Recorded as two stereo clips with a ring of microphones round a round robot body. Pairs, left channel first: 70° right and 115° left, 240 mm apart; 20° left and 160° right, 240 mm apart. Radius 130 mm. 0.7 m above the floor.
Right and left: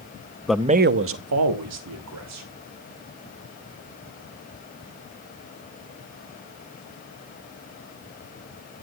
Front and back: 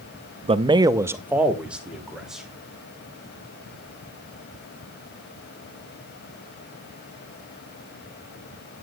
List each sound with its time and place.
0.5 s a man speaking: 145° right, 0.5 m; by 2.5 s 115° left, 2.5 m